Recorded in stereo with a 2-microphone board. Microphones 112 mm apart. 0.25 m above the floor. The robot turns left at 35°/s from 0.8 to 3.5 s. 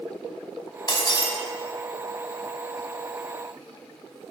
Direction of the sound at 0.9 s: 45° left (ahead or behind).